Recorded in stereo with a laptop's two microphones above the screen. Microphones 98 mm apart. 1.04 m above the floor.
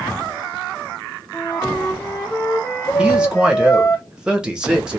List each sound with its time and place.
1.3 s a flute: 30° left (ahead or behind), 1.2 m
3.0 s a man speaking: 10° right (ahead or behind), 0.7 m